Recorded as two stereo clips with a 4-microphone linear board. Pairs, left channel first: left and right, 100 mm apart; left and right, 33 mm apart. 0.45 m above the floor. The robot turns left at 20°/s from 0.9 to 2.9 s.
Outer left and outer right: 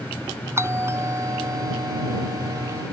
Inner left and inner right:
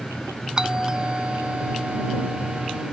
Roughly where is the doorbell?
Ahead right.